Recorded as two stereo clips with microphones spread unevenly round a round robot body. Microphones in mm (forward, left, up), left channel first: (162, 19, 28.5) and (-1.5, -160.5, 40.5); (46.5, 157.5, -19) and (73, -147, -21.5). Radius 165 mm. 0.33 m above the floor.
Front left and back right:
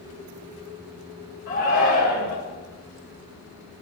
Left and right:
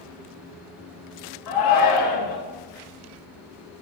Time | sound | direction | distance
1.5 | a shout | 105° left | 2.5 m